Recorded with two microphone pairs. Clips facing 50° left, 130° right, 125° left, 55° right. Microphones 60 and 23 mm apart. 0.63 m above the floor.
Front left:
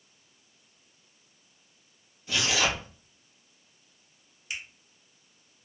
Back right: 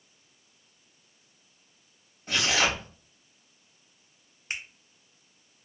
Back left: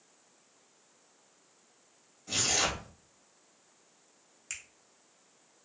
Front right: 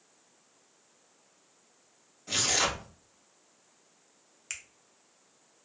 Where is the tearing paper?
110° right, 1.1 m.